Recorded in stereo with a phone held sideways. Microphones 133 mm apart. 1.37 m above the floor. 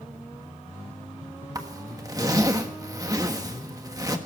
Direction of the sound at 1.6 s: 25° right (ahead or behind).